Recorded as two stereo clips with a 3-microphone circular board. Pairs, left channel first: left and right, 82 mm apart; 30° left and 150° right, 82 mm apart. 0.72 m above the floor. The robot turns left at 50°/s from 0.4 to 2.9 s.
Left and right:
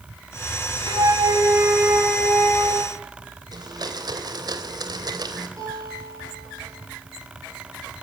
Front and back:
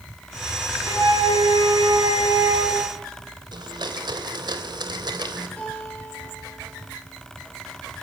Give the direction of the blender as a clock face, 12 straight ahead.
4 o'clock.